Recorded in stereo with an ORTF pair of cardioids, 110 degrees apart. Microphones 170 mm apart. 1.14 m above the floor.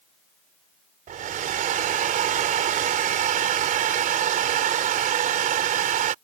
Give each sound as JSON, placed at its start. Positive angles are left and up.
{"t": 1.1, "sound": "a hair dryer", "azimuth_deg": -55}